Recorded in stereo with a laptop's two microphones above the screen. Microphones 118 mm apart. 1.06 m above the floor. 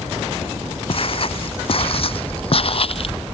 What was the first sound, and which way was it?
Footsteps, 50° left (ahead or behind).